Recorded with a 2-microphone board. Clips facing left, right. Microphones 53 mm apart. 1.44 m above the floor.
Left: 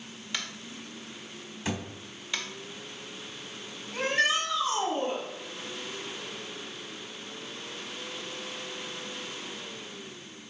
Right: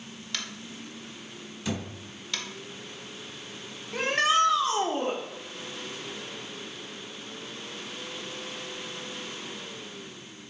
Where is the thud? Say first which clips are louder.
Right 1 dB; 30° left (ahead or behind), 1.2 m.